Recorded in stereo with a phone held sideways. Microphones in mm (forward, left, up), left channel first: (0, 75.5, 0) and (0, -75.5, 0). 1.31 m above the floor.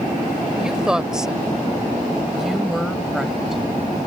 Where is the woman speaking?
5° right (ahead or behind); by 3.6 s centre (ahead or behind).